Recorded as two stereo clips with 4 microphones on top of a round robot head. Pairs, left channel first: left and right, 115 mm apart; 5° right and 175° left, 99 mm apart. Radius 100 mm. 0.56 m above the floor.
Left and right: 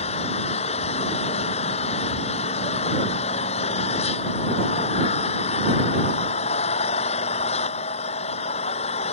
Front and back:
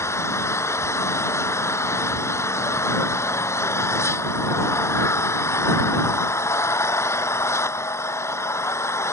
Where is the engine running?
55° left.